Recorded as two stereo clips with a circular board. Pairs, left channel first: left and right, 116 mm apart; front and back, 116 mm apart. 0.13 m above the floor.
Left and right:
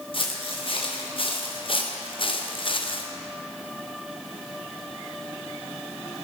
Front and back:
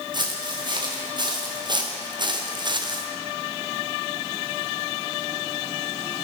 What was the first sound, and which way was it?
Footsteps, 130° left.